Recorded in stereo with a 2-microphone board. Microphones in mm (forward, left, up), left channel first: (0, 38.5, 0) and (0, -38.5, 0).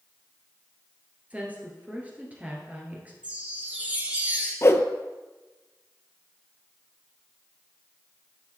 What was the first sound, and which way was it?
A woman speaking, 20° right (ahead or behind).